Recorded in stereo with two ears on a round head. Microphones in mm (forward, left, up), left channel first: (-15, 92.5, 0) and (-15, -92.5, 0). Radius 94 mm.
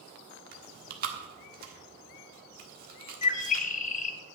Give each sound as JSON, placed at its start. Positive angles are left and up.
{"t": 0.5, "sound": "chewing", "side_deg": -45, "distance_m": 1.5}
{"t": 3.2, "sound": "a bird", "side_deg": 35, "distance_m": 0.6}